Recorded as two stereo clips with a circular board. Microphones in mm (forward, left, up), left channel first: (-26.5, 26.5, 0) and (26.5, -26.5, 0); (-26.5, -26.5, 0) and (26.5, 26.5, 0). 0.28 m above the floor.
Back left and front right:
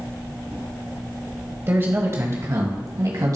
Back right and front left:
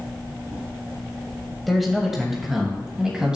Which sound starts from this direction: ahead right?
A man speaking, at 1.7 s.